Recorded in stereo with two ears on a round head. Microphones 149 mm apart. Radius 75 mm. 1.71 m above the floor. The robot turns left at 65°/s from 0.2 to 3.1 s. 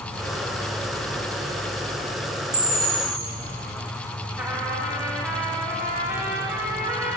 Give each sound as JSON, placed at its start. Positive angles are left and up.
{"t": 2.5, "sound": "a camera shutter", "azimuth_deg": -65, "distance_m": 1.9}
{"t": 4.4, "sound": "a trumpet", "side_deg": -10, "distance_m": 1.1}